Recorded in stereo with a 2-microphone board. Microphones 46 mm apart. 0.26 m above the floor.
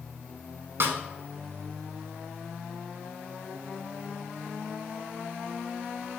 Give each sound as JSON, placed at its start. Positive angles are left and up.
{"t": 0.8, "sound": "a snare drum", "side_deg": -60, "distance_m": 0.6}